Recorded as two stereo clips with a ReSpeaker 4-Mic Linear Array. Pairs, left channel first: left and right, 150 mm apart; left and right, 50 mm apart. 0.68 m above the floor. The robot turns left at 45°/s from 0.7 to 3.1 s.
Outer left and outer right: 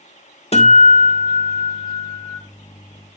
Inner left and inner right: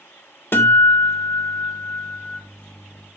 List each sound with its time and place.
0.5 s a guitar: 110° left, 1.2 m; by 2.4 s 30° left, 1.2 m